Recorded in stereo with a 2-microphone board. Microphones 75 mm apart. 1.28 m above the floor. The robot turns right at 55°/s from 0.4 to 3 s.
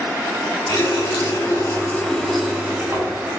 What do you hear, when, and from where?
0.7 s a running tap: 90° left, 1.7 m; by 3.3 s 145° right, 1.7 m